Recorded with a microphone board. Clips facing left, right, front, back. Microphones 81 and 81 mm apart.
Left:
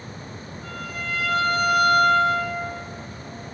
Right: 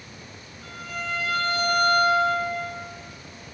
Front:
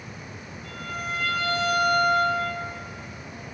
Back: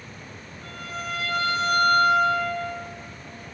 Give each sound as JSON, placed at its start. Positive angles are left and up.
{"t": 0.6, "sound": "a violin", "azimuth_deg": 175, "distance_m": 4.5}